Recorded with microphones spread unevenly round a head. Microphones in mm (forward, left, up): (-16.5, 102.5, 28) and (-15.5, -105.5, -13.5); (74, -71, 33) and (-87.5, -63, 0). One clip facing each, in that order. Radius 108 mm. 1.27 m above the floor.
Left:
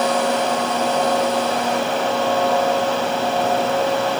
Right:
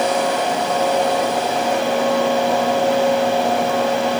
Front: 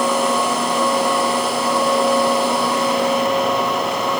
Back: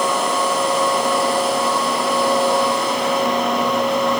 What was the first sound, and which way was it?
Only background noise.